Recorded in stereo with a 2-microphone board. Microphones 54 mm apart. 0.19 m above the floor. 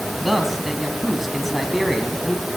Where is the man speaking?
5° right (ahead or behind), 1.3 m.